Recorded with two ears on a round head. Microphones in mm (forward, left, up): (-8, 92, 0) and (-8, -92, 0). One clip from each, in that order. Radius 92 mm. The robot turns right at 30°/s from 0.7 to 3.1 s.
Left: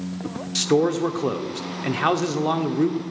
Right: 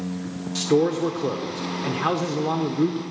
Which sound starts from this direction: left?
A man speaking, at 0.6 s.